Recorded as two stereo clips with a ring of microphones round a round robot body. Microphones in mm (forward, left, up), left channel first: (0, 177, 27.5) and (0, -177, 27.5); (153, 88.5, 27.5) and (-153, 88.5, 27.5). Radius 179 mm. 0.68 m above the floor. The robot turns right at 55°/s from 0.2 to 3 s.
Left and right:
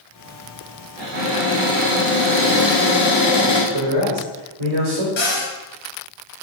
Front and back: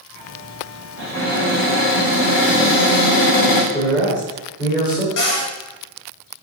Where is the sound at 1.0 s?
95° right, 4 m; by 3.6 s 15° left, 4 m.